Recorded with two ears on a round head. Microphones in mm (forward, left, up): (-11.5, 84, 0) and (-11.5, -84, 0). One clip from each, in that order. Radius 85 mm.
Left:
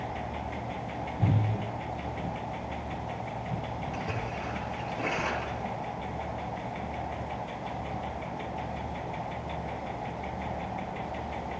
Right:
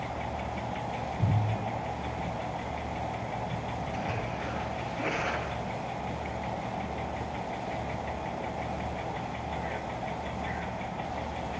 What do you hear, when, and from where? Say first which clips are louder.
3.9 s a splash: right 1 dB; 20° left (ahead or behind), 9 m